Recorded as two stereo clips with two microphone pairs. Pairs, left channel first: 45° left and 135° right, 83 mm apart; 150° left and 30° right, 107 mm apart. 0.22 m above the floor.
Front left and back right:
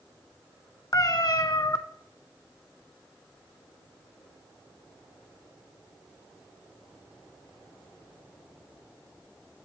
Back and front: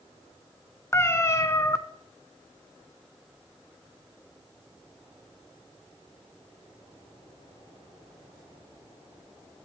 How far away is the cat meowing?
About 0.6 m.